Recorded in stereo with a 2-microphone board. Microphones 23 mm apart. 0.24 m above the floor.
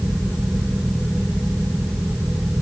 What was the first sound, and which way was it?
Only background noise.